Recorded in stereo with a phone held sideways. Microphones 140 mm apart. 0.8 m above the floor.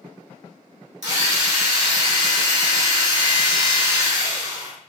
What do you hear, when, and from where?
1.0 s a drill: 55° right (ahead or behind), 1.7 m